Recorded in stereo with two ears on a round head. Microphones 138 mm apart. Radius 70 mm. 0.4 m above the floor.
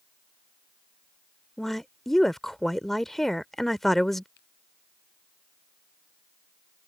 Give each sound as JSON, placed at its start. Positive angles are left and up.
{"t": 1.6, "sound": "a woman speaking", "side_deg": 0}
{"t": 4.4, "sound": "a finger snap", "side_deg": 80}